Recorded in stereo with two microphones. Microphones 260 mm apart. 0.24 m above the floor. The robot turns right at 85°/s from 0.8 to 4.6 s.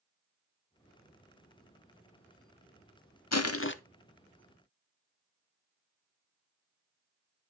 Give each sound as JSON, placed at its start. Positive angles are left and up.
{"t": 3.3, "sound": "crushing", "azimuth_deg": 95, "distance_m": 0.5}